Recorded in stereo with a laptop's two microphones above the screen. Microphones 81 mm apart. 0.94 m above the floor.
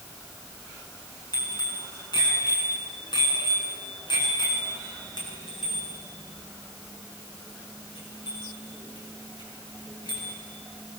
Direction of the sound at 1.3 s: 60° left (ahead or behind).